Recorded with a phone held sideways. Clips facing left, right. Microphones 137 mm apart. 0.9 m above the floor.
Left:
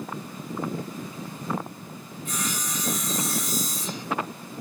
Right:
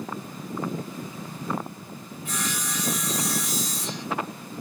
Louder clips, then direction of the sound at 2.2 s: Even; 70° right (ahead or behind).